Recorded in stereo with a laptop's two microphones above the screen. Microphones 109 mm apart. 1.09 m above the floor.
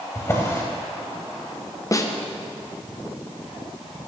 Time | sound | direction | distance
0.1 | a drawer | 25° left (ahead or behind) | 1.3 m
1.9 | a snare drum | 30° left (ahead or behind) | 0.6 m